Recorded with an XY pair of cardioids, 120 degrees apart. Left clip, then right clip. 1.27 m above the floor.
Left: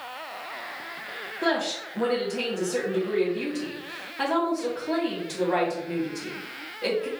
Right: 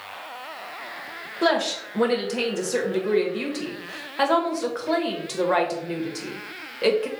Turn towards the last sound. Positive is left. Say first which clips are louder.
# right 4 dB
turn(degrees=-65)